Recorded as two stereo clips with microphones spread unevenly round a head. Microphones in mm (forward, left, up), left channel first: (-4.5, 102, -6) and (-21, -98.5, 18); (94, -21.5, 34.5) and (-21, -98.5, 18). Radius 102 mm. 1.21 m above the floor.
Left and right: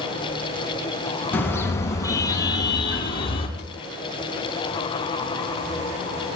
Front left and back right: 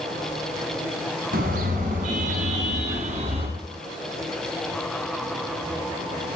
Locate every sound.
1.3 s a car horn: 165° left, 5.5 m; by 3.5 s 150° left, 5.5 m
3.6 s a drawer: 140° left, 4 m